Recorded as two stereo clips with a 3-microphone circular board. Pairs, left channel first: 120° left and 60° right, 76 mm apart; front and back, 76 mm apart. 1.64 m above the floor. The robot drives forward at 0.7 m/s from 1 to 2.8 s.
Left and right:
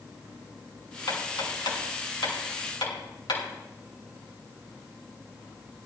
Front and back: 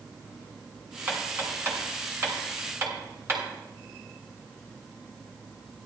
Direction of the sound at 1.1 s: 115° left.